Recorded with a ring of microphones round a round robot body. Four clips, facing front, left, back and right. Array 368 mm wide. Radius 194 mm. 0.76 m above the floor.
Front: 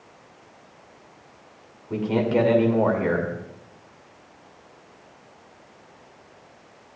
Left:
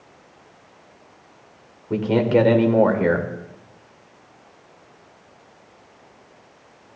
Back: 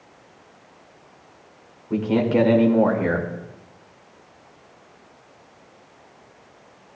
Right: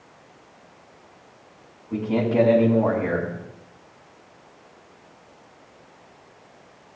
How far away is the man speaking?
About 2.5 m.